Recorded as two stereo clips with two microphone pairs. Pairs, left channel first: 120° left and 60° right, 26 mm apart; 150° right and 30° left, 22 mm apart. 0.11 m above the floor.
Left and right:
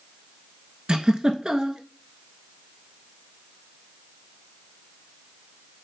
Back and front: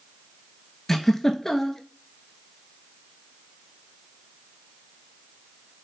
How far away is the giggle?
About 0.5 m.